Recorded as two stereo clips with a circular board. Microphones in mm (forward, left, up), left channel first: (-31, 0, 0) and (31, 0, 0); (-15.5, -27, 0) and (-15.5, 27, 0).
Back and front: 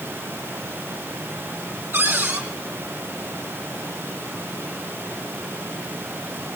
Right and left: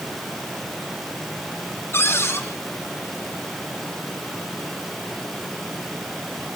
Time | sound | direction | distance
1.9 | a cupboard door | 55° right | 5 m